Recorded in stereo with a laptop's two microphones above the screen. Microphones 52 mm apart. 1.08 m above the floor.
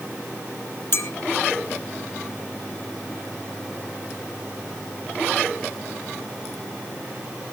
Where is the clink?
50° left (ahead or behind), 1.3 m.